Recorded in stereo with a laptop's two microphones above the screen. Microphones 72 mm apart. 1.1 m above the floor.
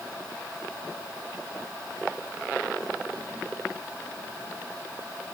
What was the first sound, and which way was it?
Only background noise.